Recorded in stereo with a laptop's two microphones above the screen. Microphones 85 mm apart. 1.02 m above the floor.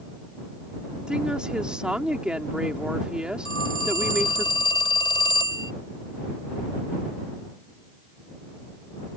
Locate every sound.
1.1 s a woman speaking: 10° right (ahead or behind)
3.5 s a phone ringing: 85° left